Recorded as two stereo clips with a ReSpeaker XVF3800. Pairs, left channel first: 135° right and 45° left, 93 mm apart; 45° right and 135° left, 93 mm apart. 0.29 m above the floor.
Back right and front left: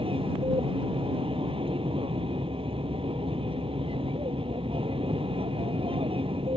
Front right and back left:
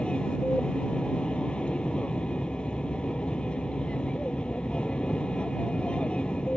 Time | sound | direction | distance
0.0 | an aircraft | 35° left | ?